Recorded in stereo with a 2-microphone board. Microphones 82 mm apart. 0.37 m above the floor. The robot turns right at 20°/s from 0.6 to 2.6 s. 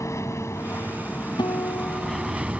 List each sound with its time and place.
0.0 s an aircraft: 40° left (ahead or behind); by 2.6 s 10° right (ahead or behind)
1.4 s a guitar: 70° left (ahead or behind); by 2.5 s 50° left (ahead or behind)